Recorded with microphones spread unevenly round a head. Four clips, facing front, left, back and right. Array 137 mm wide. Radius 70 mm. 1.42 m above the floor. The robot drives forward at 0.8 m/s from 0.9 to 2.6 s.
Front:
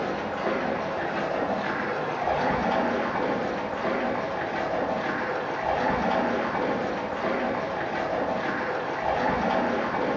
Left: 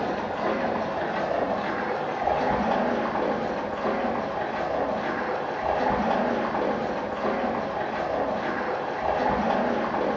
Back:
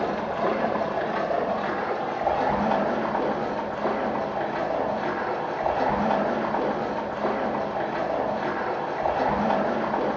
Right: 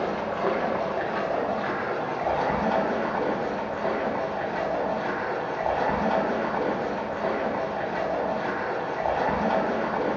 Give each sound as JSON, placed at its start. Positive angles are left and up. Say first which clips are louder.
{"t": 0.0, "sound": "running water", "louder": "right 1 dB, back 3 dB", "azimuth_deg": -140, "distance_m": 2.0}